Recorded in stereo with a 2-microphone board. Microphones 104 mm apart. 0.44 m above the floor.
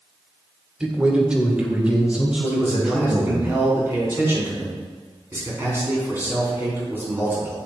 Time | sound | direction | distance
0.8 | a man speaking | 10° right (ahead or behind) | 1.2 m
2.5 | a man speaking | 25° right (ahead or behind) | 4 m